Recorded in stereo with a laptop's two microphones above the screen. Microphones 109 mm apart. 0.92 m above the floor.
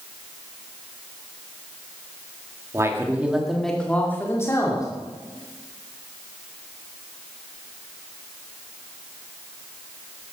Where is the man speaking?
30° right (ahead or behind), 2 m; by 4.9 s 30° left (ahead or behind), 3 m.